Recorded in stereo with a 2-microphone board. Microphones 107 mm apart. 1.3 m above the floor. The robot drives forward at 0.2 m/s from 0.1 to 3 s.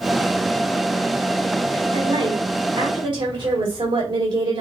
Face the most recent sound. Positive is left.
turn(degrees=-45)  # may be behind; listen again after turning